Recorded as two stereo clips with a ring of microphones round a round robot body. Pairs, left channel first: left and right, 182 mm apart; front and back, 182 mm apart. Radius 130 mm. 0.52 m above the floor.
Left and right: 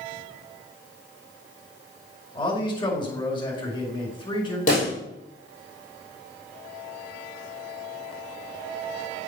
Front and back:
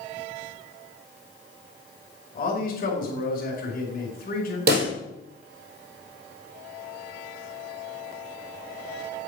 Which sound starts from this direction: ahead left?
A man speaking, at 2.4 s.